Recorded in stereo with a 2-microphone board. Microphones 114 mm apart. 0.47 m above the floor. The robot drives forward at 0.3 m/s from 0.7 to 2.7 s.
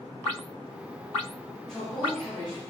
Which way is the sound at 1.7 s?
5° left (ahead or behind).